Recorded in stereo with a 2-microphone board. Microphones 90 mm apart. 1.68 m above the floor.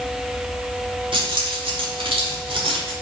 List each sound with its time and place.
1.1 s keys jangling: 65° right (ahead or behind), 3 m; by 2.9 s 75° right (ahead or behind), 3 m